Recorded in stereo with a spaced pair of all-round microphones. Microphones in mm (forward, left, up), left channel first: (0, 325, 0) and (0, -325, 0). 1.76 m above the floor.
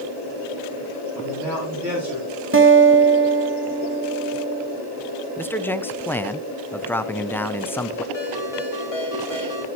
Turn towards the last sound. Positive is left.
turn(degrees=65)  # may be behind; listen again after turning